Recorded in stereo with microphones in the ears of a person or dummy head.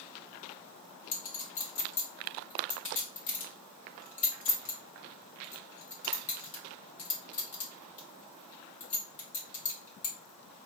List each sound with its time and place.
1.1 s a clink: 40° left (ahead or behind), 1.6 m